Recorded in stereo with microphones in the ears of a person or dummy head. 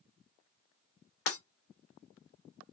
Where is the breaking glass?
65° left (ahead or behind), 2.5 m.